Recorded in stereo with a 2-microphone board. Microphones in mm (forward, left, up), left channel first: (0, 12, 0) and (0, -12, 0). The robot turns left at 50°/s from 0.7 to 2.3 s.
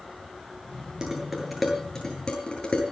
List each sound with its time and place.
1.0 s dishes clattering: 30° right (ahead or behind), 8.5 m; by 2.8 s 35° left (ahead or behind), 8.5 m